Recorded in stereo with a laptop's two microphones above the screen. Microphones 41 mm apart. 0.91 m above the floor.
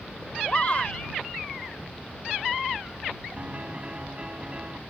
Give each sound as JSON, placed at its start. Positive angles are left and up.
{"t": 0.5, "sound": "a shout", "side_deg": 30}
{"t": 3.4, "sound": "a piano", "side_deg": -30}